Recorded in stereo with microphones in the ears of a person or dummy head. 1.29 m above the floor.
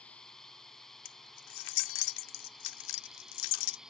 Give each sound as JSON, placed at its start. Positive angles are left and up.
{"t": 0.0, "sound": "a drone", "side_deg": 5}
{"t": 1.1, "sound": "keys jangling", "side_deg": 70}